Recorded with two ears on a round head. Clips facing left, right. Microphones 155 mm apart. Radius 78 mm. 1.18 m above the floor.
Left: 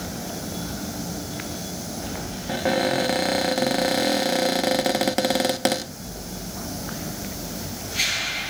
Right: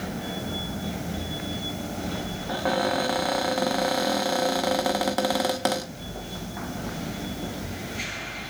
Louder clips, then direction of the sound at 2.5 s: Left 3 dB; 25° left (ahead or behind).